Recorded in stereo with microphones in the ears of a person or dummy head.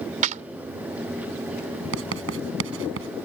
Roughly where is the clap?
Right.